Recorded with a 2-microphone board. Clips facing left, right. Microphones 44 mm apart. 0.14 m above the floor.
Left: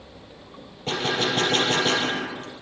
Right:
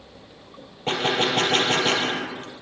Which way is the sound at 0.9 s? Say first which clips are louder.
Right 2 dB; 35° right (ahead or behind).